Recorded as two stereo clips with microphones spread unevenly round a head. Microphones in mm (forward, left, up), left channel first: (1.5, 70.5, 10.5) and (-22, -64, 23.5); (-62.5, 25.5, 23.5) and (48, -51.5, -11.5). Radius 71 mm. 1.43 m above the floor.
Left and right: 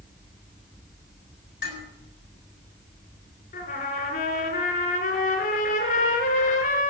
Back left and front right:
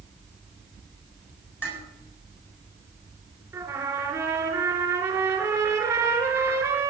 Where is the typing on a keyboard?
No typing on a keyboard in this recording.